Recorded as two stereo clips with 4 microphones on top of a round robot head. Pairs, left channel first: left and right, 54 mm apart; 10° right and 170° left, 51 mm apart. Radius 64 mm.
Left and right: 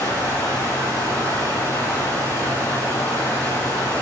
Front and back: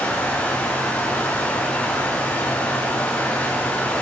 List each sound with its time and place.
0.0 s running water: 50° left, 4.5 m